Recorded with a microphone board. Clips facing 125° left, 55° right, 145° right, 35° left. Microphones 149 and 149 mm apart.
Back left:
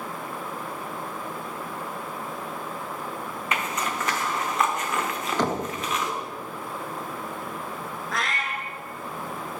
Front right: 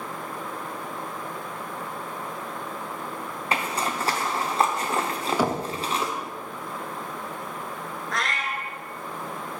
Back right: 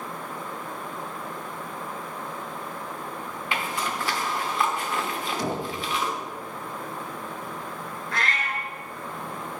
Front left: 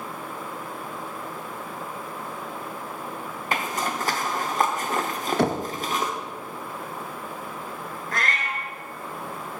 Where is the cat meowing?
35° left, 1.0 m.